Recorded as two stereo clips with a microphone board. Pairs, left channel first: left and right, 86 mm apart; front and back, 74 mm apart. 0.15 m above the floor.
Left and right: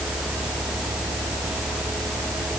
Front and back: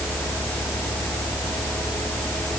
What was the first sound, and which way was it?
Only background noise.